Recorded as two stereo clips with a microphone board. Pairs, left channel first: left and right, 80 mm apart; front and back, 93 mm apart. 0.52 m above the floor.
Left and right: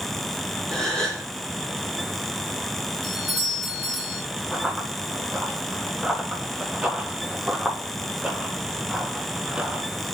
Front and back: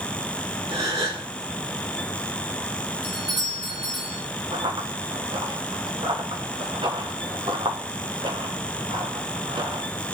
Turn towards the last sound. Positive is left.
turn(degrees=-165)